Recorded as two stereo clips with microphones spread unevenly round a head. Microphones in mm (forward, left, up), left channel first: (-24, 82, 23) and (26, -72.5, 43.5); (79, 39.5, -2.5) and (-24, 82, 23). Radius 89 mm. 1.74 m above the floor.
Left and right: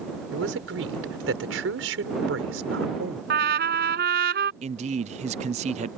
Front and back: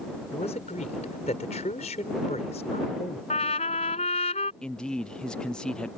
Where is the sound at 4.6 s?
115° right.